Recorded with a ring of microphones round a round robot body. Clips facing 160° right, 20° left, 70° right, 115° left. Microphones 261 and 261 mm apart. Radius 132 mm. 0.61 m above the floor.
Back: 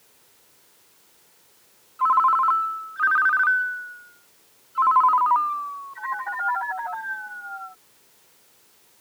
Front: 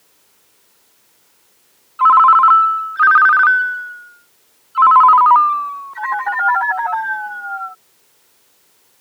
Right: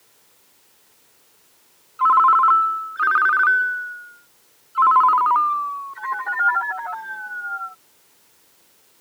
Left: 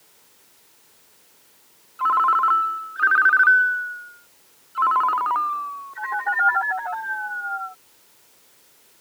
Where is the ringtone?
15° left.